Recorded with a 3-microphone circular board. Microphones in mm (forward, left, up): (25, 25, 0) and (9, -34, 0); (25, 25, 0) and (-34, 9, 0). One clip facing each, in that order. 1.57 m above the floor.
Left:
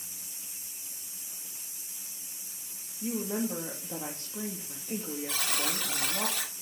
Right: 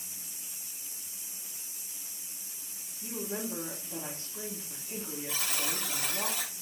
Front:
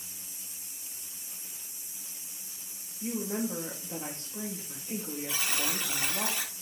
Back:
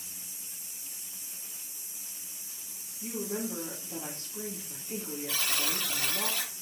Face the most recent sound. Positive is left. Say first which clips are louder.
# left 2 dB, even
turn(degrees=85)